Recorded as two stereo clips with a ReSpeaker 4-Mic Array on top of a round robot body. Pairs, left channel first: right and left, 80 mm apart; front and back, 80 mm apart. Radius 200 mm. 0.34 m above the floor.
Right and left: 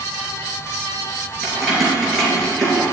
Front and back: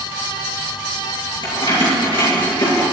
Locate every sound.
1.4 s keys jangling: straight ahead, 7 m; by 2.8 s 5° right, 7 m